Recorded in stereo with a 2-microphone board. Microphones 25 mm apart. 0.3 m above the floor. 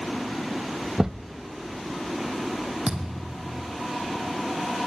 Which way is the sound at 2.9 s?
50° right (ahead or behind).